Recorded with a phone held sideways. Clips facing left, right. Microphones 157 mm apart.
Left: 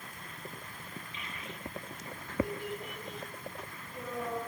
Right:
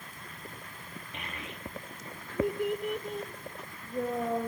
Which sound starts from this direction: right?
A child speaking, at 1.1 s.